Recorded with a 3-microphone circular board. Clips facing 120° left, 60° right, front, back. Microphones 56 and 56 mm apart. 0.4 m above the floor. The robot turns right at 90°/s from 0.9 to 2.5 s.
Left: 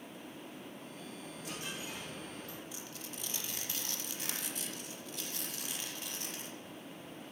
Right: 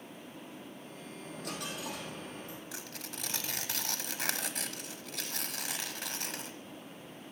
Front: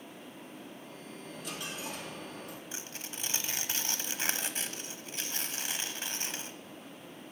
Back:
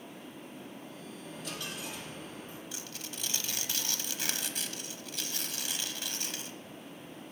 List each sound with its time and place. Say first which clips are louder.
1.2 s a dropped coin: right 4 dB, even; 105° right, 2.5 m; by 2.6 s 10° left, 2.5 m
2.7 s tearing paper: right 2 dB, even; 60° right, 0.8 m